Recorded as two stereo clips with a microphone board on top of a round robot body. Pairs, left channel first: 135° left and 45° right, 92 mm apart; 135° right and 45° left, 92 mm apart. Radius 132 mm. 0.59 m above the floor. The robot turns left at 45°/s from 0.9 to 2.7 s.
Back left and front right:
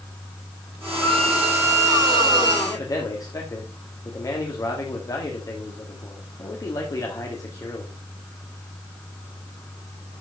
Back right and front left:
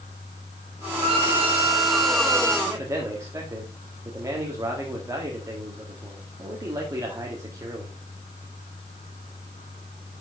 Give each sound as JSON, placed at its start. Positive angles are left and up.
{"t": 1.0, "sound": "a violin", "azimuth_deg": 50, "distance_m": 3.0}
{"t": 2.7, "sound": "a man speaking", "azimuth_deg": 95, "distance_m": 1.8}